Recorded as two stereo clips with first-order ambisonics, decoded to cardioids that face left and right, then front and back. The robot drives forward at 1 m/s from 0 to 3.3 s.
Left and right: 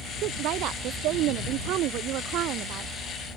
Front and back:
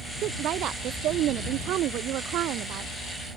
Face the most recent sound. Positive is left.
turn(degrees=-135)